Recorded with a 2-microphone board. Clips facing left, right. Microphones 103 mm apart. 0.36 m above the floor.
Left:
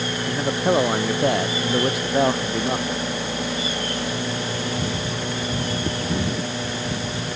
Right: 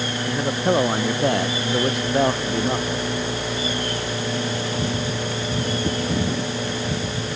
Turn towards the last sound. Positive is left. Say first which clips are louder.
# even
turn(degrees=0)  # may be behind; listen again after turning